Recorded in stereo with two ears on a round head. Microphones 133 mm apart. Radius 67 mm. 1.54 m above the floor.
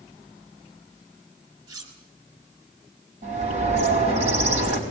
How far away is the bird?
About 4.5 m.